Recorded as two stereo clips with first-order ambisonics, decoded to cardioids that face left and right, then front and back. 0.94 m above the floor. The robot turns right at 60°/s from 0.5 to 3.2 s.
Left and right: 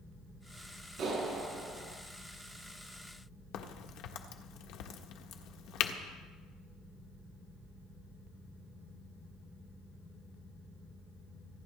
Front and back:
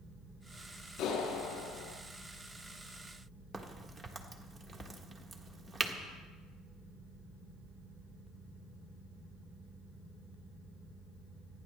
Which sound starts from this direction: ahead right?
A clap, at 1.0 s.